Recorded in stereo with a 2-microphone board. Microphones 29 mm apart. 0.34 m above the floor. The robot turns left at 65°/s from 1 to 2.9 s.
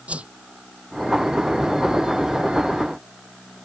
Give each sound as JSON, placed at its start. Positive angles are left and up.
{"t": 0.1, "sound": "a whoosh", "side_deg": -45}